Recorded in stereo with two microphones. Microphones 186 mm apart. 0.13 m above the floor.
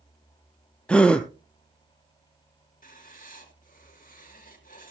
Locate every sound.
0.9 s a gasp: 5° left (ahead or behind), 1.0 m
2.8 s writing: 45° left (ahead or behind), 2 m